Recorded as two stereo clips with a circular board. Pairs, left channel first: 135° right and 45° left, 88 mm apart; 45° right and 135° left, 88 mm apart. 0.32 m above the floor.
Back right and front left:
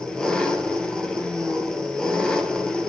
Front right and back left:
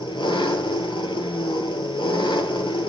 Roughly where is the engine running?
Ahead right.